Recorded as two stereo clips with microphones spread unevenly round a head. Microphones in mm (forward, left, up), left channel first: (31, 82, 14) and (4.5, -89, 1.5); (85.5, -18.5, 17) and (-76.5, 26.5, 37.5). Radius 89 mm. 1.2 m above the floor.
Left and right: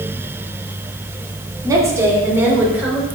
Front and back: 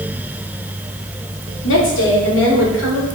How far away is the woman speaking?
About 2.5 m.